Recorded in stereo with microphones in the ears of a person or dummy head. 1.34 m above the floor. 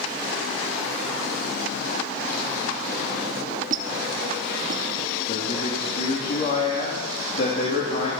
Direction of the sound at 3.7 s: 50° right (ahead or behind).